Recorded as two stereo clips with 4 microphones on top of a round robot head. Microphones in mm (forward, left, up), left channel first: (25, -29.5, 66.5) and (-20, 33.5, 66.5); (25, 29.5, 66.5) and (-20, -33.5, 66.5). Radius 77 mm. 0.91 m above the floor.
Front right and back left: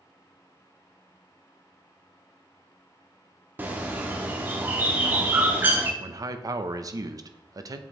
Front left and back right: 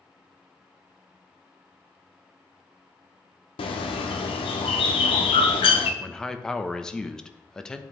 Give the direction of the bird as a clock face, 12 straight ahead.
10 o'clock.